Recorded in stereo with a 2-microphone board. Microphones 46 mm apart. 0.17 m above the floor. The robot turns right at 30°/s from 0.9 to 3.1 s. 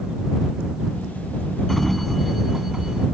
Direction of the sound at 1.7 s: 175° left.